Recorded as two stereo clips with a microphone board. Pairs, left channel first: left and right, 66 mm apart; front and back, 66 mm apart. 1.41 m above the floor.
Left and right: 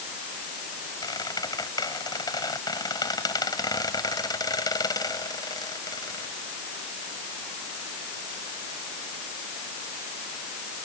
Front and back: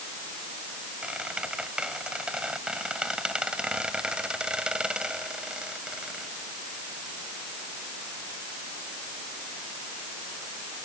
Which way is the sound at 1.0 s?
105° left.